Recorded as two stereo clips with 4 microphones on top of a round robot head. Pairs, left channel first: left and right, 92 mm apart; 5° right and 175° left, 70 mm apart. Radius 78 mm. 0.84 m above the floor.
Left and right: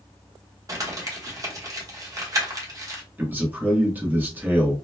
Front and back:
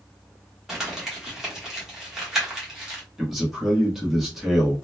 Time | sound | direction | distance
0.7 | crumpling | 105° right | 1.1 m
3.2 | a man speaking | 105° right | 1.0 m